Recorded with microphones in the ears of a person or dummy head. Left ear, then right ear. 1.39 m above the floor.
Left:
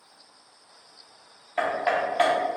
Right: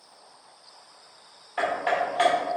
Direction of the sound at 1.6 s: 5° left (ahead or behind).